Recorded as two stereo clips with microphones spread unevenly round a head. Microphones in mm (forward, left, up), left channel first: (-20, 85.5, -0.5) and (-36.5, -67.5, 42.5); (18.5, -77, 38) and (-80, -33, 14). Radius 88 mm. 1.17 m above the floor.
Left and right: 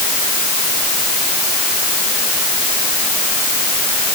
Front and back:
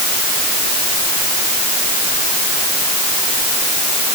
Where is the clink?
No clink in this recording.